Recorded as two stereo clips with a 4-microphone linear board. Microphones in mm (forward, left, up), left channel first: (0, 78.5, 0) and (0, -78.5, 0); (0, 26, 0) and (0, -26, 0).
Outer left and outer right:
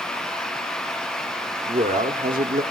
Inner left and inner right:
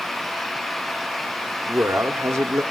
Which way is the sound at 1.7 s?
65° right (ahead or behind).